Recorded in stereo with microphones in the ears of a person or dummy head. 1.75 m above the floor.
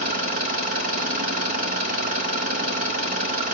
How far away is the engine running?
About 0.9 m.